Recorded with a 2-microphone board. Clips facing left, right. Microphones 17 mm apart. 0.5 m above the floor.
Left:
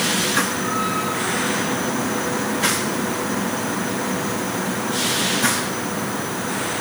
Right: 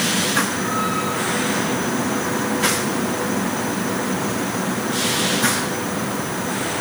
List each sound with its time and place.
Only background noise.